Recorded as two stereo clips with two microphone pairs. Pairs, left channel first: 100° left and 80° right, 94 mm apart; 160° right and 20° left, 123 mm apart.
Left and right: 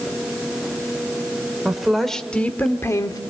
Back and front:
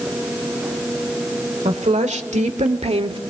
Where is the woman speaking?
5° left, 2 m; by 3.2 s 60° left, 1.4 m.